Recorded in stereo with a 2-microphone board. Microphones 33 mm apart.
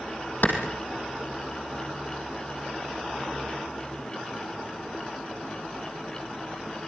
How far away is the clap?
About 4.5 m.